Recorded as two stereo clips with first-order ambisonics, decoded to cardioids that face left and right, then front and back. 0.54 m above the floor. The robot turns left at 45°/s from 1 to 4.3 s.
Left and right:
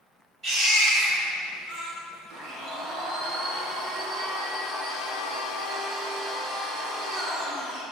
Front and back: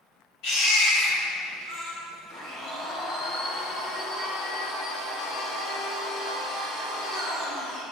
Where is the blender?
50° right, 0.8 m; by 7.8 s 140° right, 0.8 m.